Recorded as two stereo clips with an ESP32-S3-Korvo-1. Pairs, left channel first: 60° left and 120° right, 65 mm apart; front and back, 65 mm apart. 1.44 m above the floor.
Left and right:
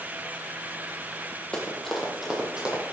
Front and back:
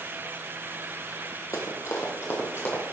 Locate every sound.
1.5 s running footsteps: 10° right, 2 m; by 2.9 s 50° right, 3.5 m